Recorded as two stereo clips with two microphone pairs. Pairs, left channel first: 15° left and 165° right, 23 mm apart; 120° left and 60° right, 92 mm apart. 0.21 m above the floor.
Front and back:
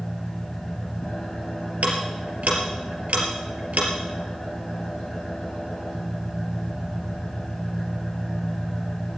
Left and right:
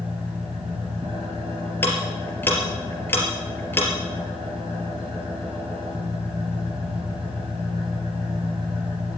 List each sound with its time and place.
0.0 s an engine running: 40° right, 6.5 m
1.8 s ticking: 175° right, 3.5 m